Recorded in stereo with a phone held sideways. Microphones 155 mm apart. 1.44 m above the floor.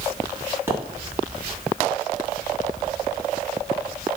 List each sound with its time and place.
0.7 s a pop: 15° right (ahead or behind), 3.5 m